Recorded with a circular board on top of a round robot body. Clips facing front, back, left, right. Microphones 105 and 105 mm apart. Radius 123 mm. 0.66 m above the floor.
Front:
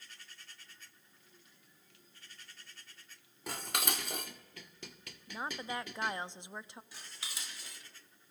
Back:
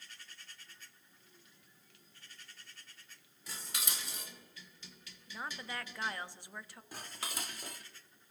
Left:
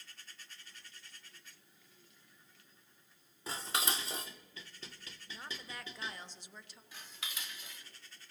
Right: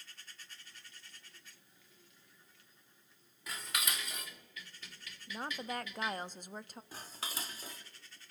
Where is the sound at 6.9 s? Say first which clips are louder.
Back 9 dB, right 4 dB; 140° right, 1.2 m.